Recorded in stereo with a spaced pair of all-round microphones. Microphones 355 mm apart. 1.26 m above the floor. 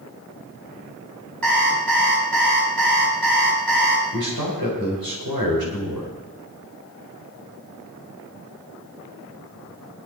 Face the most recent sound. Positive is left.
turn(degrees=-80)